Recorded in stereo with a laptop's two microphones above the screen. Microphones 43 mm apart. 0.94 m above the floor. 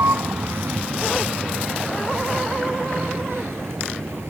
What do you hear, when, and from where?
0.0 s a vehicle: 90° right; by 4.3 s 75° right (ahead or behind)